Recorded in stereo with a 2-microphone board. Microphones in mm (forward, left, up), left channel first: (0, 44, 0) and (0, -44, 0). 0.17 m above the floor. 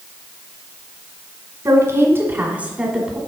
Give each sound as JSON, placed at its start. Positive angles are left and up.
{"t": 1.6, "sound": "a woman speaking", "side_deg": -35, "distance_m": 1.7}